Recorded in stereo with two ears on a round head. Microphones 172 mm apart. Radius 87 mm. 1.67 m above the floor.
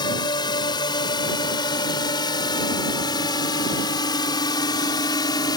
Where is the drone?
20° left (ahead or behind).